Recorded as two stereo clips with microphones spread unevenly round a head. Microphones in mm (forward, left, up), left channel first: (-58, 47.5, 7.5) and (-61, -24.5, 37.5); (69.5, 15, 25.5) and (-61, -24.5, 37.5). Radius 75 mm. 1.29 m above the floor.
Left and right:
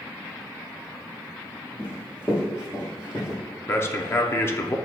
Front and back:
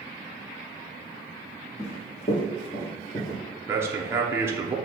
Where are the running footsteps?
10° right, 1.7 m; by 3.4 s 45° left, 1.3 m.